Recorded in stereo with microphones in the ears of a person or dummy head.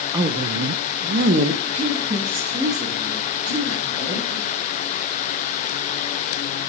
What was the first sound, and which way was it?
A woman speaking, 15° right (ahead or behind).